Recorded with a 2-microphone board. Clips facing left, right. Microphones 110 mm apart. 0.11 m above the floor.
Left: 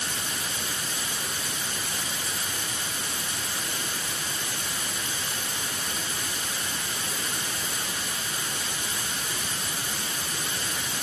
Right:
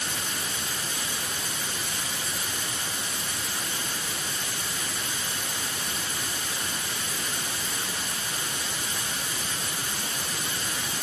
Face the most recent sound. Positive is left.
No sound to turn to.